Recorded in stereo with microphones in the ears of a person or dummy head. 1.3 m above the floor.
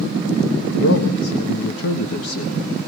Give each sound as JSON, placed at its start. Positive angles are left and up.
{"t": 0.7, "sound": "a man speaking", "side_deg": 85, "distance_m": 1.2}